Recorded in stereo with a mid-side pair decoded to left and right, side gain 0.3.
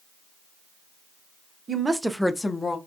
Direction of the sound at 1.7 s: 50° right.